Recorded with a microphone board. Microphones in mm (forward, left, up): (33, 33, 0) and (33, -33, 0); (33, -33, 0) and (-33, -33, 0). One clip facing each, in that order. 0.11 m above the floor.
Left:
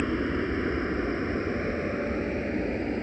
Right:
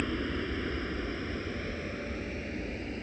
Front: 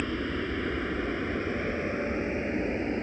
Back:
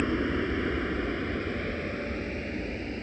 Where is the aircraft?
125° left; by 3.0 s 55° left.